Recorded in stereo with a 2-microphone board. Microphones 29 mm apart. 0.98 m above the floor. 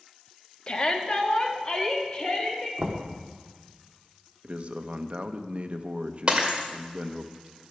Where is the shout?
35° left (ahead or behind), 1.3 m.